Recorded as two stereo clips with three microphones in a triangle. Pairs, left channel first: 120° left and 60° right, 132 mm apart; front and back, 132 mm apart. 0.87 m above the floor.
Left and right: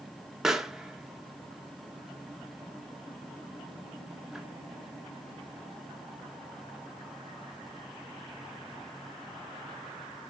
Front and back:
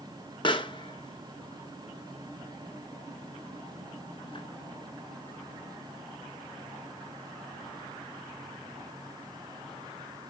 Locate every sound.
0.4 s a pop: 25° left, 0.8 m